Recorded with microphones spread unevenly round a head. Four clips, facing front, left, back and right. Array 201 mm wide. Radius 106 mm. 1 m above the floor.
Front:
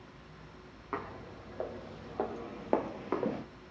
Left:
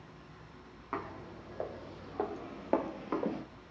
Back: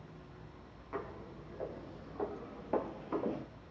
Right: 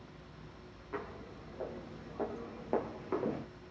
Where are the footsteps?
40° left, 2.5 m; by 3.5 s 5° left, 1.0 m.